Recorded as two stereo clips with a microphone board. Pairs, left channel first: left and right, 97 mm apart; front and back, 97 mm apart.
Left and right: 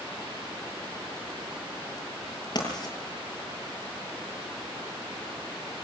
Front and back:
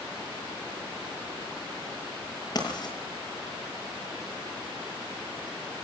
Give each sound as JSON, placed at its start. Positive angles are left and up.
{"t": 2.5, "sound": "writing", "azimuth_deg": 45, "distance_m": 8.5}